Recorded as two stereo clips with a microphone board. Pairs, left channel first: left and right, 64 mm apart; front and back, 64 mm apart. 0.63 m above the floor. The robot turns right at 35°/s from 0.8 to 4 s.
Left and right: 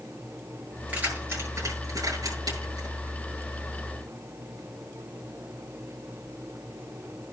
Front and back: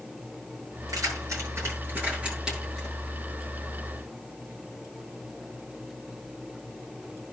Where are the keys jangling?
155° right, 8.5 m; by 3.0 s 85° right, 8.5 m.